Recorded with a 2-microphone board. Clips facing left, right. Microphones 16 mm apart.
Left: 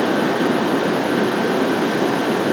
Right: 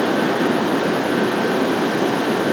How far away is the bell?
No bell in this recording.